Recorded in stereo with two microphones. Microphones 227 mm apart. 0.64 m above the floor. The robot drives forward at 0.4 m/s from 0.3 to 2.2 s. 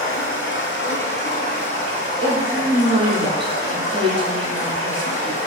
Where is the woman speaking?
20° right (ahead or behind), 0.7 m.